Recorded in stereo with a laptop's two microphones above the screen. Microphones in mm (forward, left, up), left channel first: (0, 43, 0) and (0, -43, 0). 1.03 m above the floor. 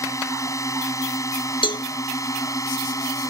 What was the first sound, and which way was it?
A drone, 40° left (ahead or behind).